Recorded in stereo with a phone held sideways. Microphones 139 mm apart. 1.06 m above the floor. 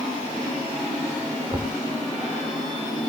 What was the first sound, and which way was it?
Knocking, 30° right (ahead or behind).